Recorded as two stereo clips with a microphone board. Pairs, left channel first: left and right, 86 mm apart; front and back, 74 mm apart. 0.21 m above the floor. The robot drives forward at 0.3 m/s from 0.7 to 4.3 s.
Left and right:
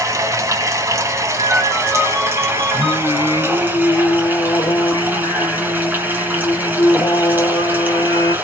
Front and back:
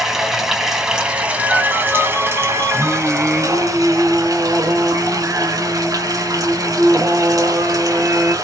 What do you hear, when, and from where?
0.0 s running water: 100° right, 0.9 m; by 8.4 s 155° right, 1.5 m
1.4 s a ringtone: 50° right, 2 m; by 3.0 s 60° right, 1.9 m
2.7 s singing: 90° left, 0.5 m; by 8.3 s 130° left, 0.7 m